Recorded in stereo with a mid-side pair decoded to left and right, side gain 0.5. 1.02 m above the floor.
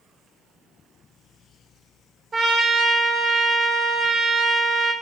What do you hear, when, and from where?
2.3 s a trumpet: 40° right, 0.8 m